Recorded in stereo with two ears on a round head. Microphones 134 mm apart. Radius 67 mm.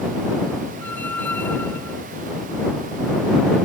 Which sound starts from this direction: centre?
A squeak, at 0.8 s.